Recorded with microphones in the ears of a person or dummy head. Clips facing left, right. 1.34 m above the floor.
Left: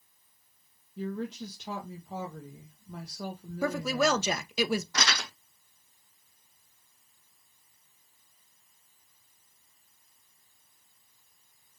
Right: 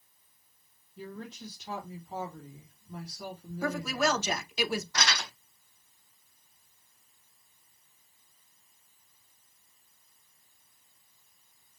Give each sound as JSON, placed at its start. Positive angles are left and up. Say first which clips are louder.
{"t": 1.0, "sound": "a woman speaking", "louder": "left 8 dB", "side_deg": 60, "distance_m": 1.4}
{"t": 3.6, "sound": "a woman speaking", "louder": "left 2 dB", "side_deg": 65, "distance_m": 1.0}
{"t": 4.9, "sound": "crumpling", "louder": "even", "side_deg": 75, "distance_m": 3.0}